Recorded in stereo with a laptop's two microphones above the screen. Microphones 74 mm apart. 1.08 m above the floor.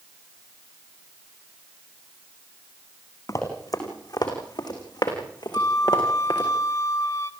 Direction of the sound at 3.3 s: 50° left (ahead or behind).